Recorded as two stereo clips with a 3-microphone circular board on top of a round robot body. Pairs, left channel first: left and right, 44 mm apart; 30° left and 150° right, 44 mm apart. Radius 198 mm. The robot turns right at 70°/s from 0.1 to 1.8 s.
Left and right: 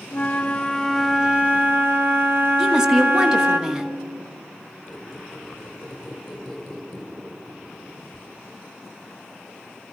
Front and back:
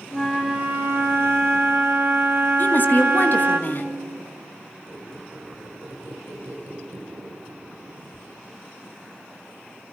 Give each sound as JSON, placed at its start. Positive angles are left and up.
{"t": 0.1, "sound": "a flute", "azimuth_deg": 120, "distance_m": 2.5}
{"t": 2.6, "sound": "a woman speaking", "azimuth_deg": -15, "distance_m": 1.9}
{"t": 4.9, "sound": "a squeak", "azimuth_deg": 170, "distance_m": 1.7}